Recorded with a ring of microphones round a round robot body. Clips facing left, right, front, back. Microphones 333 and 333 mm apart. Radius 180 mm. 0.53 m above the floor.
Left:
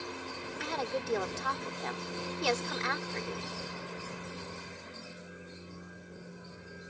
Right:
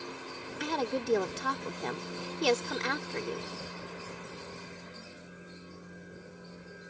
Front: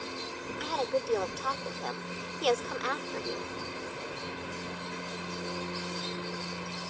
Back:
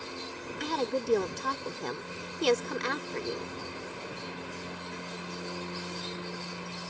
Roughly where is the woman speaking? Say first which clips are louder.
Right 4 dB, back 1 dB; behind right.